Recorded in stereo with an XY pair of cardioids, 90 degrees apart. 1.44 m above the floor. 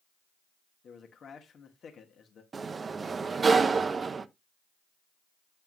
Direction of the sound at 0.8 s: 60° left.